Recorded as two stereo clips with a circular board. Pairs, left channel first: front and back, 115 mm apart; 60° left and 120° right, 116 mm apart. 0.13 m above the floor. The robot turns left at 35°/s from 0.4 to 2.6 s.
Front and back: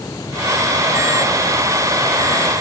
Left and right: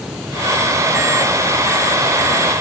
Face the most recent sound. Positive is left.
No sound to turn to.